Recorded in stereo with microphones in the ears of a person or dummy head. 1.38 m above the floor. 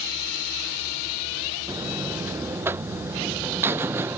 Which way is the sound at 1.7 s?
15° right (ahead or behind).